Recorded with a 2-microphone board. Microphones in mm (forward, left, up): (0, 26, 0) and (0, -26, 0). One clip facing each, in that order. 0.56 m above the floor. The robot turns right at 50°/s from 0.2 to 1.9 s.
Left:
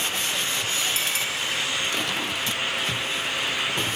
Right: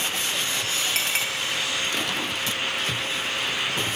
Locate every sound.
0.9 s a clink: 60° right (ahead or behind), 3 m; by 1.2 s 45° right (ahead or behind), 3 m